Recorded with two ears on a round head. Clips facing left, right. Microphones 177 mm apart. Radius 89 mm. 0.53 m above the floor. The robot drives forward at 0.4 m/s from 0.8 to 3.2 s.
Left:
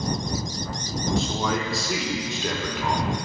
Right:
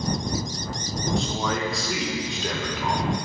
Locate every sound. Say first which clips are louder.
1.2 s a man speaking: left 1 dB; centre (ahead or behind), 0.7 m